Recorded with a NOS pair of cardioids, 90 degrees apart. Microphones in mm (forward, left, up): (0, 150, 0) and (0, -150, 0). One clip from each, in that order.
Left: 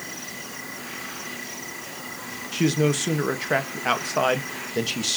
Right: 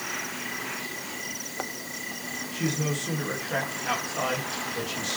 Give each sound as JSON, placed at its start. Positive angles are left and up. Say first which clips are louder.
{"t": 2.5, "sound": "a man speaking", "louder": "left 9 dB", "azimuth_deg": 70, "distance_m": 1.8}